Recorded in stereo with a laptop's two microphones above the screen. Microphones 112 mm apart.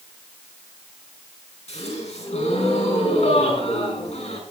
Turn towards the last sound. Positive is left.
turn(degrees=85)